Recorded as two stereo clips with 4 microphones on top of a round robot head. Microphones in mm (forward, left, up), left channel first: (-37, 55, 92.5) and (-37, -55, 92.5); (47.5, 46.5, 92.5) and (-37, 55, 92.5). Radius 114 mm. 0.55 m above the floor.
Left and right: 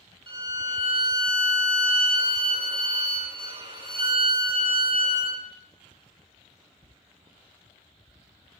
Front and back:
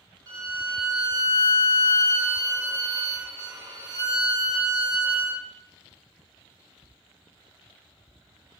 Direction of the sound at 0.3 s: 130° right.